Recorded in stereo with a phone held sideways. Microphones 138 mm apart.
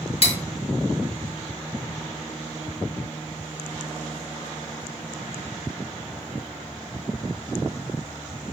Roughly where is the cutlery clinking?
Left.